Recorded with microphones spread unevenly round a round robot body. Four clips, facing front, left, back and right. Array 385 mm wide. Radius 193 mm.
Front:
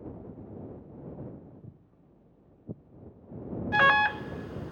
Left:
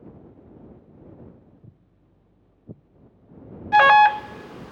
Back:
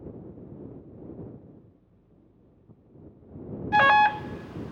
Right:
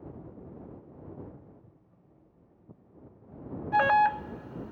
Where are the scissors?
I don't hear scissors.